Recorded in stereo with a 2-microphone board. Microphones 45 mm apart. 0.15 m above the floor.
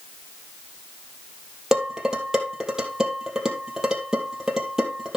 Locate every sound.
1.7 s dishes clattering: 15° right (ahead or behind), 2.5 m